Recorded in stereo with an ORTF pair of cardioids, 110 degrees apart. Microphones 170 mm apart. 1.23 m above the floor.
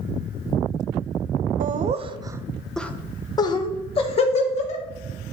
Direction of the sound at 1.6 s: 55° right.